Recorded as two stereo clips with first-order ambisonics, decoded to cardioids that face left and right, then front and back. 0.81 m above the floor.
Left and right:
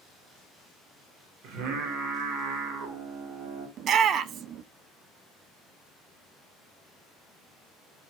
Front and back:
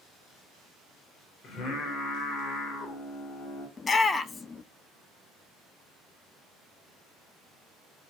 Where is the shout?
60° right, 0.6 m.